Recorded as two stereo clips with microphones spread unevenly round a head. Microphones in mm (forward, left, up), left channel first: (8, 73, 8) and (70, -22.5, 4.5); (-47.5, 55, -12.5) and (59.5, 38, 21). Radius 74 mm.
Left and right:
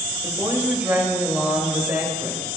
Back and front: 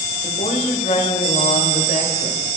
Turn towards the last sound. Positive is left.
turn(degrees=-135)